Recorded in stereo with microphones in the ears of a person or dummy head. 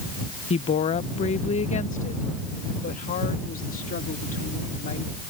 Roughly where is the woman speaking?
Left.